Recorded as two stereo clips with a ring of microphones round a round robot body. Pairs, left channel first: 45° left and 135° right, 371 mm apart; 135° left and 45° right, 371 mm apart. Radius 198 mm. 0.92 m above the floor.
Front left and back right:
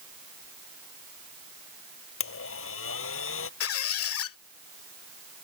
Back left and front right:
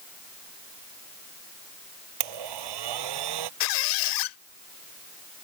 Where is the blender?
15° right.